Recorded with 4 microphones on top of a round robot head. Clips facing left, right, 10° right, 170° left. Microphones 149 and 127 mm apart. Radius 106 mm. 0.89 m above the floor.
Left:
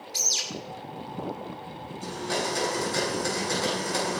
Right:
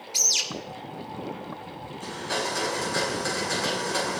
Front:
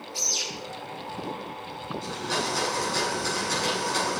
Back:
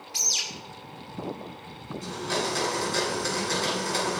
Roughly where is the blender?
Behind left.